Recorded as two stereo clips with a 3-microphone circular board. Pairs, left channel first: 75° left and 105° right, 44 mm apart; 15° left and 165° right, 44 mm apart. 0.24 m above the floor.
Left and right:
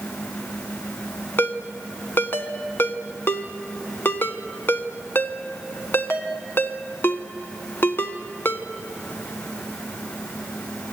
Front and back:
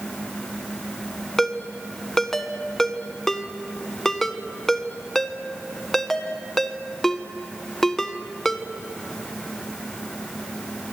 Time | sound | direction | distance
1.4 | a ringtone | 95° left | 1.4 m